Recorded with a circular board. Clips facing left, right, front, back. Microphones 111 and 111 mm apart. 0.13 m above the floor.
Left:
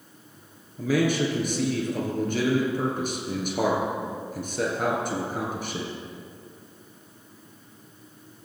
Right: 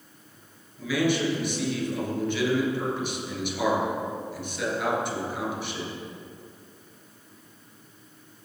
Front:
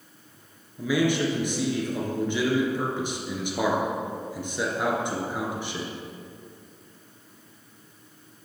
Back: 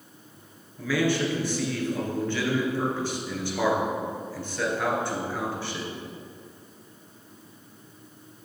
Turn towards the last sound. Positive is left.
turn(degrees=65)